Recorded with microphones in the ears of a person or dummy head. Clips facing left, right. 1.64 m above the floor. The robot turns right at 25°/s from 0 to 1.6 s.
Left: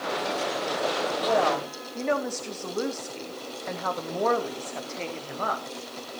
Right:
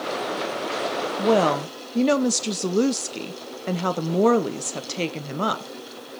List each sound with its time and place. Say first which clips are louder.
1.2 s a woman speaking: right 6 dB; 60° right (ahead or behind), 0.8 m; by 5.7 s 50° right (ahead or behind), 0.8 m